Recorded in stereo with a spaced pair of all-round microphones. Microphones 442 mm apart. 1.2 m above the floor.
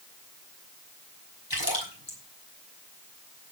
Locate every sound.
1.5 s a splash: 55° left (ahead or behind), 5.5 m